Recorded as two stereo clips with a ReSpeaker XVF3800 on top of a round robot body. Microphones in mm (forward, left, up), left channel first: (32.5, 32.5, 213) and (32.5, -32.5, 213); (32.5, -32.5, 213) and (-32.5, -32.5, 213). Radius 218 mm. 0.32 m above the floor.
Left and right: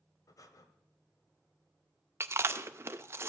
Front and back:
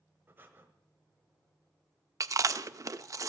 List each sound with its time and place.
0.3 s breathing: 120° left, 1.4 m
2.2 s chewing: 140° right, 0.5 m